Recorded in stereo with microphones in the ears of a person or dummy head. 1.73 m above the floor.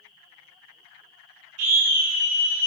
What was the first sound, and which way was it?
A scream, 75° right (ahead or behind).